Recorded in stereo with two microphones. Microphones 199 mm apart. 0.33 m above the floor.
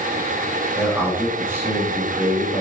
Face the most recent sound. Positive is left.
turn(degrees=-10)  # may be behind; listen again after turning